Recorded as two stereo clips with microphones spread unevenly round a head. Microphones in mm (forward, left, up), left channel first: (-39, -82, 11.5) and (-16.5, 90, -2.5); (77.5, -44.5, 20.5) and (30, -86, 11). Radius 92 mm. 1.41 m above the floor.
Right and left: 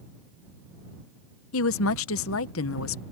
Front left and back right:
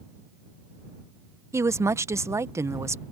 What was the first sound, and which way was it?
A woman speaking, 95° right.